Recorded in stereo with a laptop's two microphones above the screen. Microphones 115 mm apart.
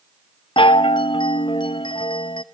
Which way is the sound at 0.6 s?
50° left (ahead or behind).